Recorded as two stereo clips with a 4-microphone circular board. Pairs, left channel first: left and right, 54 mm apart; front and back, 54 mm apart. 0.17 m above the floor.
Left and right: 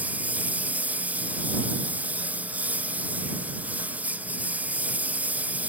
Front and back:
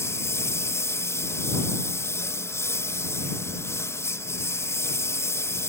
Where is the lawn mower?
30° right.